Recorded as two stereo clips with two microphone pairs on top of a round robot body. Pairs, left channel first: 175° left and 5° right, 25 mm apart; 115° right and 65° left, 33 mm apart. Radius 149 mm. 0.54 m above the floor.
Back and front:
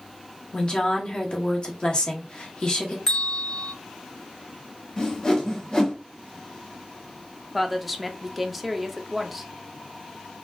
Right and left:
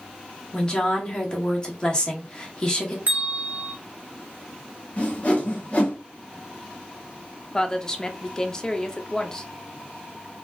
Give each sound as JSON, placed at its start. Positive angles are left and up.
{"t": 0.5, "sound": "a woman speaking", "azimuth_deg": -165, "distance_m": 1.8}
{"t": 3.1, "sound": "a bell", "azimuth_deg": 100, "distance_m": 1.0}
{"t": 5.0, "sound": "a whoosh", "azimuth_deg": -145, "distance_m": 2.0}
{"t": 7.5, "sound": "a woman speaking", "azimuth_deg": -110, "distance_m": 0.9}